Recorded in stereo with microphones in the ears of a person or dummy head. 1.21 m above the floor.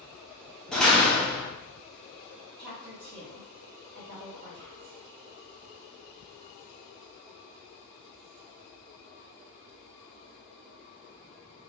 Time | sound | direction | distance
0.7 | a door slam | centre (ahead or behind) | 0.6 m
2.6 | a woman speaking | 50° right (ahead or behind) | 1.2 m